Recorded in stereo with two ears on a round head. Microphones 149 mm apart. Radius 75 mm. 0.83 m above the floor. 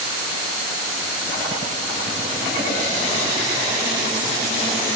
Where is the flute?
No flute in this recording.